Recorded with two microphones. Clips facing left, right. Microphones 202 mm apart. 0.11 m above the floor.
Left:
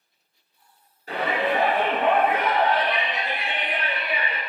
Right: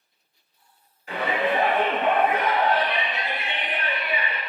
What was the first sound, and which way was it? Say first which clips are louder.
A shout: even; 40° left (ahead or behind).